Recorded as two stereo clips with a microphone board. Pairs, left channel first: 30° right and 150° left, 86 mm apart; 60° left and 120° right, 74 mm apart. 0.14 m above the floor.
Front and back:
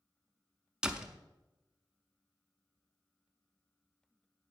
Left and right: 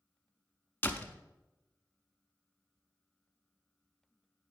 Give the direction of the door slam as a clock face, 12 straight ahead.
9 o'clock.